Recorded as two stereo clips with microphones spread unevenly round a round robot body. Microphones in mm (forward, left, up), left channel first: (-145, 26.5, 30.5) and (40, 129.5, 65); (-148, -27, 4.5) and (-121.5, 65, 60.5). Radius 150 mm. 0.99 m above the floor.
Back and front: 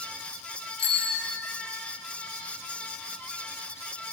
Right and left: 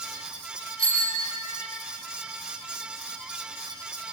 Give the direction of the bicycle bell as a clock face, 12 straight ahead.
6 o'clock.